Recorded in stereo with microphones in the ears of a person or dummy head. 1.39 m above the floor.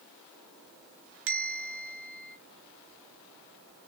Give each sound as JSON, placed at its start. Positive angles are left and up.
{"t": 1.3, "sound": "a bell", "side_deg": -50, "distance_m": 0.6}